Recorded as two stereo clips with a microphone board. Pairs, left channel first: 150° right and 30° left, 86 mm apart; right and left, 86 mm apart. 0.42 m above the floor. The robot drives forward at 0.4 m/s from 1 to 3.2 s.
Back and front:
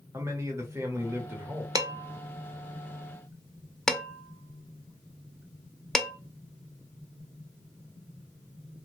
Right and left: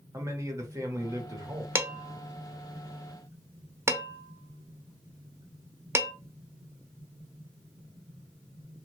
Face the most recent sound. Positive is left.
turn(degrees=130)